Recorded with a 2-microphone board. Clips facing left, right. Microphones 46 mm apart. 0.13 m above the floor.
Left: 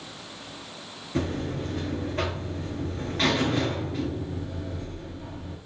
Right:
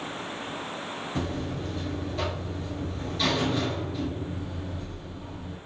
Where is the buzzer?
50° left (ahead or behind), 1.1 m.